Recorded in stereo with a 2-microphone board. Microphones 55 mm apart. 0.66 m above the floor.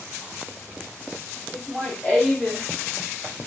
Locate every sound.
1.5 s laughter: 25° left (ahead or behind), 1.3 m; by 3.5 s 5° left (ahead or behind), 1.3 m